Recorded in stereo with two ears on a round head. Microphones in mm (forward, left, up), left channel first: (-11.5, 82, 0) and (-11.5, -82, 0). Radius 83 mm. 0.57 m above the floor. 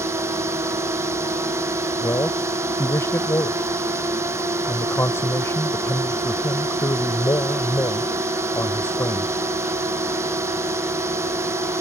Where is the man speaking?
15° left (ahead or behind).